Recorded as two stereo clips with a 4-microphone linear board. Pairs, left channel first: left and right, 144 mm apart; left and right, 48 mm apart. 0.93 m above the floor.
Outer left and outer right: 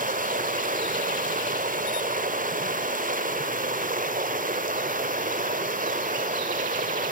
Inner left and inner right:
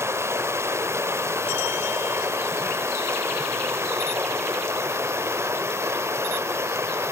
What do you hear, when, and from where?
0.0 s running water: 70° right (ahead or behind), 1.6 m